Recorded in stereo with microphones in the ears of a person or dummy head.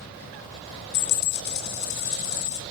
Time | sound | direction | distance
0.9 | a dropped coin | 65° left (ahead or behind) | 2.5 m